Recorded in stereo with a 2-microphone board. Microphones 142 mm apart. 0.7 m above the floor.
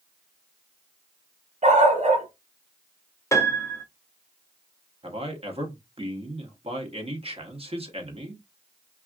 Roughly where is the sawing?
No sawing in this recording.